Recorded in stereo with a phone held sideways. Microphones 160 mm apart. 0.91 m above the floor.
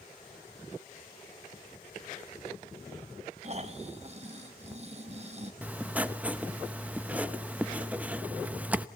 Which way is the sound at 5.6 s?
10° right (ahead or behind).